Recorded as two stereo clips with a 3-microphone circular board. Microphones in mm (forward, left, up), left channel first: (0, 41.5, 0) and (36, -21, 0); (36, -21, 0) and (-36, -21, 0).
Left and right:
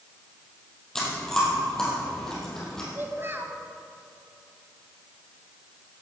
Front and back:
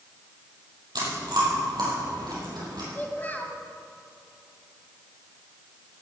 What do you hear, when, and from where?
0.9 s chewing: 155° right, 4.5 m
3.0 s a child speaking: 45° right, 1.2 m